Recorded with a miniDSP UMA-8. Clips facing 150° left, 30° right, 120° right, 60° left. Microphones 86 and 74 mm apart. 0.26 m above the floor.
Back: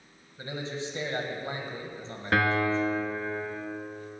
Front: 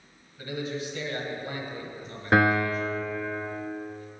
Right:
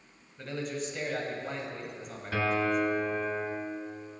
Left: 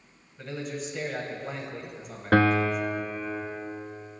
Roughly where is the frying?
No frying in this recording.